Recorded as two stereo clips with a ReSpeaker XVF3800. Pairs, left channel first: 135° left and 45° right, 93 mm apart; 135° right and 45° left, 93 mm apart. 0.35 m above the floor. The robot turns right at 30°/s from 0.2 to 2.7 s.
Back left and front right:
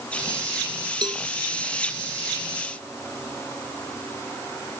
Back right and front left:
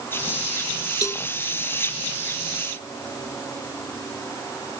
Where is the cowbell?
85° right; by 1.2 s 75° right.